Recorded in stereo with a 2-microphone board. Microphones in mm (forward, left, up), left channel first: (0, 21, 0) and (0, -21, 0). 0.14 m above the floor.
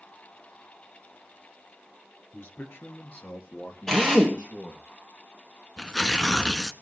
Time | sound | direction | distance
2.3 | a man speaking | 55° left (ahead or behind) | 1.7 m
3.9 | a drill | 10° left (ahead or behind) | 2.5 m
5.8 | tearing paper | 15° left (ahead or behind) | 0.9 m